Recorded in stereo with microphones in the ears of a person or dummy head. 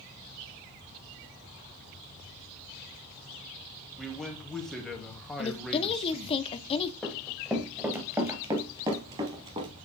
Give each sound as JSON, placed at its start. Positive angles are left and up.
{"t": 4.0, "sound": "a man speaking", "side_deg": 0, "distance_m": 1.7}
{"t": 5.4, "sound": "a woman speaking", "side_deg": 30, "distance_m": 0.6}
{"t": 7.0, "sound": "running footsteps", "side_deg": 0, "distance_m": 1.5}